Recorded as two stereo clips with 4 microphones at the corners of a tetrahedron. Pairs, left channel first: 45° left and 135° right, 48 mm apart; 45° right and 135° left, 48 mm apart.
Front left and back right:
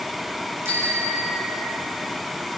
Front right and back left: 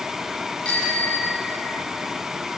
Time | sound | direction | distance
0.7 | a bicycle bell | 110° right | 7.5 m